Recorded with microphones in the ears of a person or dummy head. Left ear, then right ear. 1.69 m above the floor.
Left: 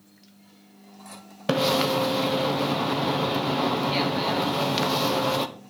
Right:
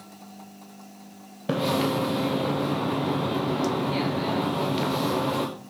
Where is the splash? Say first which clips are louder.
Left 3 dB; 45° left (ahead or behind), 0.9 m.